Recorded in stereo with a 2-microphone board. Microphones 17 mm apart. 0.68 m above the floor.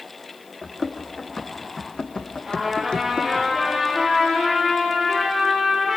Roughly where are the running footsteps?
Left.